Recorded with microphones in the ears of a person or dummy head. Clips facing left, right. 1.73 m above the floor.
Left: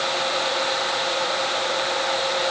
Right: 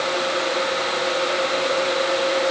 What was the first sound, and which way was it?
Only background noise.